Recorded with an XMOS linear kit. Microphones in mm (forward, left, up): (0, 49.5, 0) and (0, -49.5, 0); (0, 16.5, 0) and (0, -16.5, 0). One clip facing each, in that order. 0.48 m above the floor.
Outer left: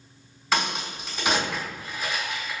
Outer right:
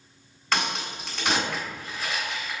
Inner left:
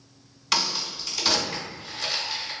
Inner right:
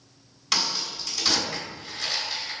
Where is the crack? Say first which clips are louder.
Outer left 1 dB, inner left 1 dB; centre (ahead or behind), 2.0 m.